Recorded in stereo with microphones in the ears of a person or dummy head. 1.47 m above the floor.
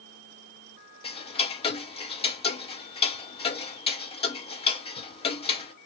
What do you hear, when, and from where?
1.0 s ticking: 25° left (ahead or behind), 0.6 m